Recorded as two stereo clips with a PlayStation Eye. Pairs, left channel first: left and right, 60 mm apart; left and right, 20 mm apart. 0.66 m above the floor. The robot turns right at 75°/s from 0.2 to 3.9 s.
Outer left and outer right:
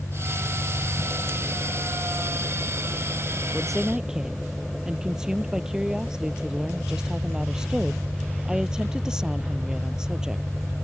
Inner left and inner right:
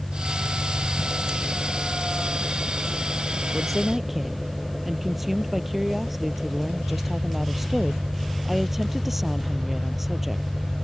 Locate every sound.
0.0 s an engine running: 85° left; by 10.9 s straight ahead
3.5 s a woman speaking: 15° left (ahead or behind); by 10.5 s 10° right (ahead or behind)